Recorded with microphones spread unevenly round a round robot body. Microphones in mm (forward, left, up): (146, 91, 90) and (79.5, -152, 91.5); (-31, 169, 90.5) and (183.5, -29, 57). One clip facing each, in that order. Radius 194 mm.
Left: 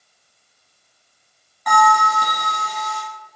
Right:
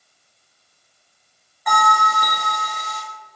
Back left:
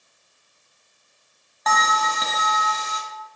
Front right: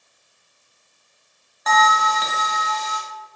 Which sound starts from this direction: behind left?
A bell, at 1.7 s.